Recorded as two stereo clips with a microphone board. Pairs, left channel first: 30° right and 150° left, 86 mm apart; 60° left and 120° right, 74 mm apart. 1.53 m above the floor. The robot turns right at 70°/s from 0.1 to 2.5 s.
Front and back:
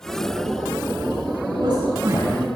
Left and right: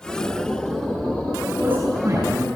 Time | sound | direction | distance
1.5 | a man speaking | 165° left | 9 m